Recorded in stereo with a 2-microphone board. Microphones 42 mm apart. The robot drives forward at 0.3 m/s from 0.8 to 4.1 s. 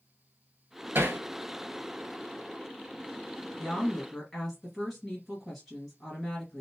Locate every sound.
0.9 s hammering: 65° right (ahead or behind), 1.0 m
3.6 s a woman speaking: centre (ahead or behind), 2 m